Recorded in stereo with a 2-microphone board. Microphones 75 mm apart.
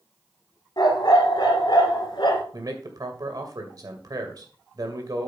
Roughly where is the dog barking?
Left.